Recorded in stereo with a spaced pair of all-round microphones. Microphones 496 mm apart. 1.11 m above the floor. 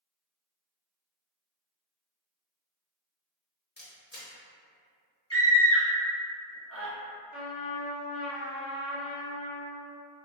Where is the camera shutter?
20° left (ahead or behind), 0.9 m.